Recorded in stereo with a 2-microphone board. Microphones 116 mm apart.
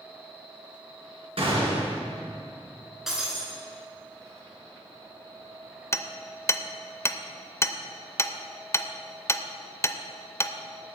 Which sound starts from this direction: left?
Hammering, at 5.9 s.